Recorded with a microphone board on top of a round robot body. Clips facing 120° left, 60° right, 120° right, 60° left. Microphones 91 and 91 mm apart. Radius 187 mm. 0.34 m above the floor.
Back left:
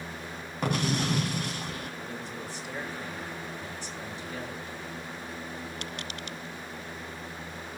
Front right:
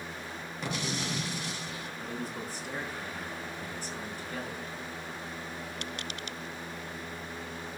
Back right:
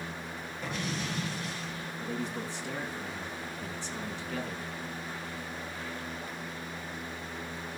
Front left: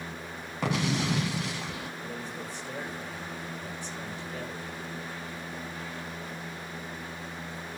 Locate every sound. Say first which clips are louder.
0.6 s an explosion: back left 7 dB, front left 8 dB; 75° left, 1.4 m
2.0 s a man speaking: front right 1 dB, back right 3 dB; 110° right, 4.5 m